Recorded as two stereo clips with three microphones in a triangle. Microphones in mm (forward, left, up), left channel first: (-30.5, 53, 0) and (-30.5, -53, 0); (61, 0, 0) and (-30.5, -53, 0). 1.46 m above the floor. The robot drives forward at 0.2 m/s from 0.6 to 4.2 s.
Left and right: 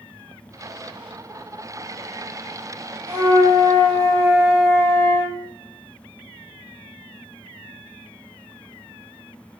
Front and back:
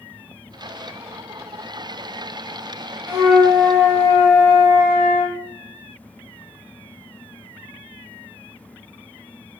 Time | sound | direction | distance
3.1 | a flute | 75° right | 1.7 m